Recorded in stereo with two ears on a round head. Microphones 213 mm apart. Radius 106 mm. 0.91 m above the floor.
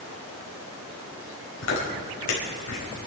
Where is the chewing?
80° left, 5 m.